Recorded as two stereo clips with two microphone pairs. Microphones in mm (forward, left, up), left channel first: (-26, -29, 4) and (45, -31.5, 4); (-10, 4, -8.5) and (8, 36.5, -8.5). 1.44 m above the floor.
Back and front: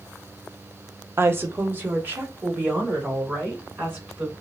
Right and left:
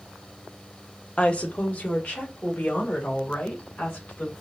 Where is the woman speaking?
60° right, 0.7 m; by 4.3 s 70° right, 3 m.